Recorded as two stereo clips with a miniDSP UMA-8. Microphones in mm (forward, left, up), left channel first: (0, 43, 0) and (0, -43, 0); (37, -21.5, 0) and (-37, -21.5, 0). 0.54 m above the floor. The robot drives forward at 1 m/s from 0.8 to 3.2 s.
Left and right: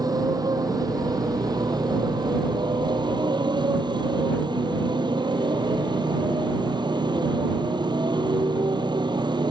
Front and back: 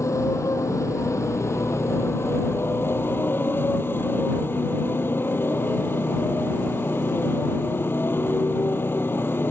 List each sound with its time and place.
0.0 s a motorcycle: 50° right; by 9.5 s 60° right